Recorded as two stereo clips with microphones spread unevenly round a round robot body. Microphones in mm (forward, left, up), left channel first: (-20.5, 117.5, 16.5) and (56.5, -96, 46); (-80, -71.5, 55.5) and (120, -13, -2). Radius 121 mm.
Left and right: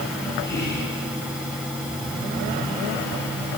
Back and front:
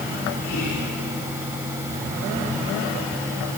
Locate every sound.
0.4 s whispering: 155° left, 5 m